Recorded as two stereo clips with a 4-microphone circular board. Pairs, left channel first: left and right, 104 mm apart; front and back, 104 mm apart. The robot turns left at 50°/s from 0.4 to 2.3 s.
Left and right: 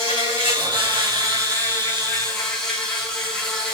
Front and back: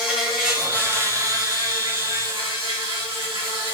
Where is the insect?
90° right, 3.5 m; by 3.7 s 175° left, 3.5 m.